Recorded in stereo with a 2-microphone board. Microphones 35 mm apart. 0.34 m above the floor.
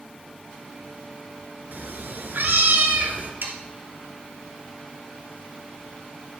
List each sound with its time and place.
1.7 s a cat meowing: 70° right (ahead or behind), 1.4 m; by 3.3 s 65° right (ahead or behind), 1.6 m
3.4 s sawing: 80° right, 1.7 m